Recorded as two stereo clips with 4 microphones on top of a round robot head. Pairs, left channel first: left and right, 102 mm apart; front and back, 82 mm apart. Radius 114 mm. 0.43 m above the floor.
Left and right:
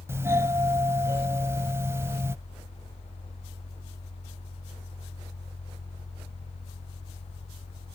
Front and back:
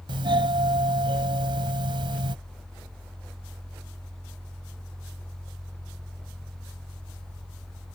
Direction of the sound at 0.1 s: 155° right.